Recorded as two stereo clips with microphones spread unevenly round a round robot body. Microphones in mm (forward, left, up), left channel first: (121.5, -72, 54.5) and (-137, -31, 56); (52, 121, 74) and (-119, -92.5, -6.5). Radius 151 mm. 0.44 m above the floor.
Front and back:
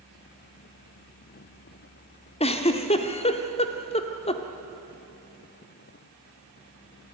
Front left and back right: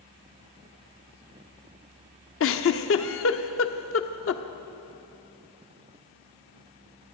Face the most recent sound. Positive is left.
turn(degrees=35)